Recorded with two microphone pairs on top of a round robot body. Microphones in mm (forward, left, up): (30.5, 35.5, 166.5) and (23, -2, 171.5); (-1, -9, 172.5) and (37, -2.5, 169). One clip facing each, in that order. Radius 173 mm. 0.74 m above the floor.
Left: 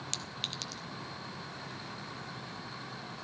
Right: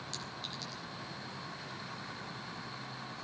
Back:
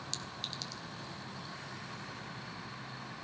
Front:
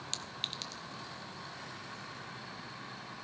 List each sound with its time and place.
0.1 s a clink: 55° left, 1.3 m